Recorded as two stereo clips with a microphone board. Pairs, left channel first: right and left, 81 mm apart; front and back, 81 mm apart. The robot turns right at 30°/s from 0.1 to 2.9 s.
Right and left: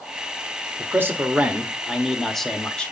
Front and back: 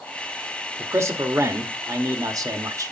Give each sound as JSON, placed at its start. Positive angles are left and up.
{"t": 0.8, "sound": "a man speaking", "azimuth_deg": 135, "distance_m": 0.9}